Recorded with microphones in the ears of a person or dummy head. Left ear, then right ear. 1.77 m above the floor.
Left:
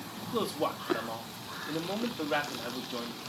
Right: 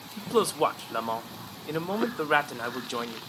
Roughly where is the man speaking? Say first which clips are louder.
Right 7 dB; right.